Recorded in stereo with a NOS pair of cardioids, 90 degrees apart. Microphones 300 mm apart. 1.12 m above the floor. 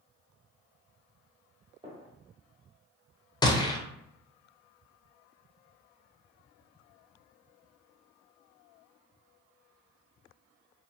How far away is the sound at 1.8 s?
About 1.4 m.